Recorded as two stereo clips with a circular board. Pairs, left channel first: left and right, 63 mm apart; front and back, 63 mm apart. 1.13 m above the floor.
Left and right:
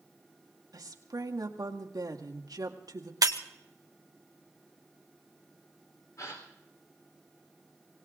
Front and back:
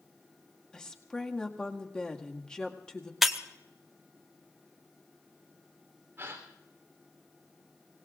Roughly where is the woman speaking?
Right.